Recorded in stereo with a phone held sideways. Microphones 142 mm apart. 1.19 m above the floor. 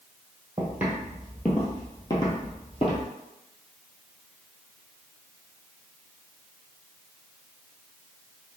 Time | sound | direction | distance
0.6 | footsteps | 15° right (ahead or behind) | 1.5 m